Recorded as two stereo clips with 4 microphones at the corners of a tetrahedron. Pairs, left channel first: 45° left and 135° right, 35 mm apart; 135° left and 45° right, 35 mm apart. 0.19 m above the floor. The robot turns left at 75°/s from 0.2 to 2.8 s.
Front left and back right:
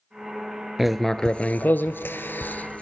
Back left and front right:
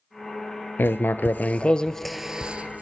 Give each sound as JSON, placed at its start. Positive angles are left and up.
{"t": 0.8, "sound": "writing", "azimuth_deg": 145, "distance_m": 0.7}